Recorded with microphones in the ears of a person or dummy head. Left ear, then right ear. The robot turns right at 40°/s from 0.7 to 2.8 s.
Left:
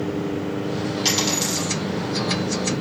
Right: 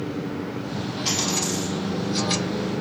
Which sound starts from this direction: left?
A dropped coin, at 1.1 s.